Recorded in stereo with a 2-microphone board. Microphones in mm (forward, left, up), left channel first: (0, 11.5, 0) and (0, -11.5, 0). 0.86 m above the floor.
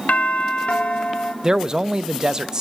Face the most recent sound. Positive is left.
turn(degrees=-30)  # may be behind; listen again after turning